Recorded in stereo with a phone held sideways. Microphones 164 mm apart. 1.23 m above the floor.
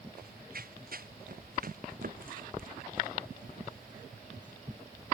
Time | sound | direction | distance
0.2 | running footsteps | 65° right (ahead or behind) | ?